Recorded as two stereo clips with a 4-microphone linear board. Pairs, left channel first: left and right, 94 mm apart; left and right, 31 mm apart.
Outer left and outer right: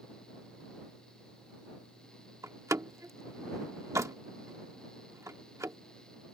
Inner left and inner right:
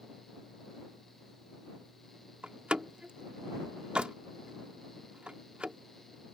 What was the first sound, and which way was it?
A door slam, 35° right (ahead or behind).